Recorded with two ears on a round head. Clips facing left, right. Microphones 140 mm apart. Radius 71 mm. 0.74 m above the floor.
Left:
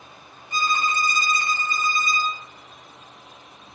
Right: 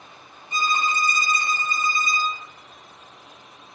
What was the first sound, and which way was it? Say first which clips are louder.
A violin: even; 20° right (ahead or behind).